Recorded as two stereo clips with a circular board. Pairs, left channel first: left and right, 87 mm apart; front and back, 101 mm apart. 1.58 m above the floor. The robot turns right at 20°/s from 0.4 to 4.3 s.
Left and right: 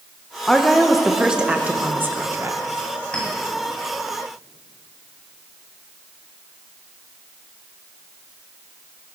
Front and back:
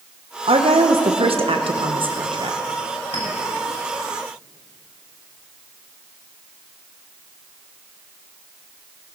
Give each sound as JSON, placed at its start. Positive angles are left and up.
{"t": 0.5, "sound": "a woman speaking", "azimuth_deg": 175, "distance_m": 1.1}
{"t": 3.1, "sound": "a clink", "azimuth_deg": 10, "distance_m": 5.5}